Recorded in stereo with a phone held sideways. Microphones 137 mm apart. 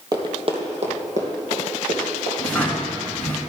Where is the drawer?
10° left (ahead or behind), 2 m.